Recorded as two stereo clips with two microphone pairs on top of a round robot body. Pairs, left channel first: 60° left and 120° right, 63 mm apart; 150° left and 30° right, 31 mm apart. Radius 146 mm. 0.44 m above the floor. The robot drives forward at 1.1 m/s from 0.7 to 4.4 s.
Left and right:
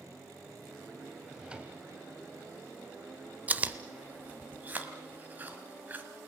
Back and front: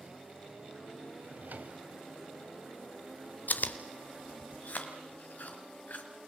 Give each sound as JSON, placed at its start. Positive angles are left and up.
{"t": 1.2, "sound": "a drawer", "azimuth_deg": -35, "distance_m": 1.8}
{"t": 3.5, "sound": "chewing", "azimuth_deg": 175, "distance_m": 0.8}